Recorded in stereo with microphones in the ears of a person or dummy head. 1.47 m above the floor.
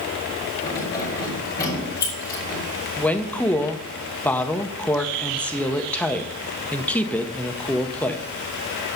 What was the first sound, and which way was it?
Keys jangling, 20° left (ahead or behind).